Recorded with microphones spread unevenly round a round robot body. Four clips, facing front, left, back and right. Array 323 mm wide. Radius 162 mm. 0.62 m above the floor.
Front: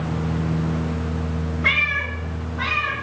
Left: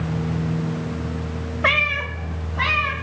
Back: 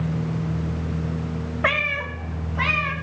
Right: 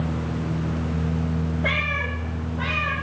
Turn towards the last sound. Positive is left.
turn(degrees=120)